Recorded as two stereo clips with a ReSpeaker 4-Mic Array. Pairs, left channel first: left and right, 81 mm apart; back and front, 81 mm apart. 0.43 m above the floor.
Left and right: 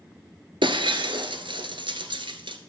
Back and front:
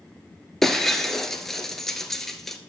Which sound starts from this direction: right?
Breaking glass, at 0.6 s.